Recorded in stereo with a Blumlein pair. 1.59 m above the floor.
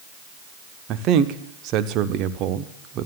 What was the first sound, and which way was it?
A man speaking, 35° right.